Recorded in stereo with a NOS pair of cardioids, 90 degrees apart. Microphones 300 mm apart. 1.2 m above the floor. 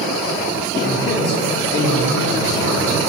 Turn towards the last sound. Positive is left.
turn(degrees=50)